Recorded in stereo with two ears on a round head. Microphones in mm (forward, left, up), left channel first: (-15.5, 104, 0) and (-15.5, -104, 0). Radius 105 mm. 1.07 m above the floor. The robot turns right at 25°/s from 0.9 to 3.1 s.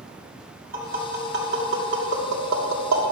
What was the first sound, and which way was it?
Tapping, 40° right (ahead or behind).